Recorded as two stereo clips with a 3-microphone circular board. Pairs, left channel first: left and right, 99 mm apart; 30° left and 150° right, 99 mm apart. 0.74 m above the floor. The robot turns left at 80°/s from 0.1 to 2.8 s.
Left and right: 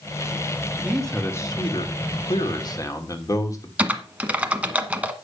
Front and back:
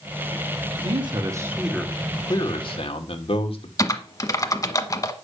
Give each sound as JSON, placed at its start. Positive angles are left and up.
{"t": 0.8, "sound": "a man speaking", "azimuth_deg": -165, "distance_m": 1.6}
{"t": 3.8, "sound": "typing on a keyboard", "azimuth_deg": -15, "distance_m": 1.0}